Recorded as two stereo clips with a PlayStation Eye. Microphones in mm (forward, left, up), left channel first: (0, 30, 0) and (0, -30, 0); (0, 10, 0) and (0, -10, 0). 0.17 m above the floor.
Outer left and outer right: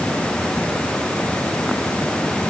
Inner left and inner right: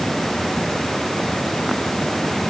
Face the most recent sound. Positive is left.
No sound to turn to.